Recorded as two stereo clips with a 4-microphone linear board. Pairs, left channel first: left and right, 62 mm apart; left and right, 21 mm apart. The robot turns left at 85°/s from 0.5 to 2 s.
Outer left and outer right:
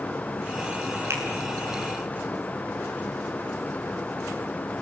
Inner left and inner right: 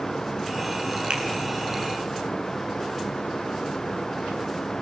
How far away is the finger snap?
About 8 m.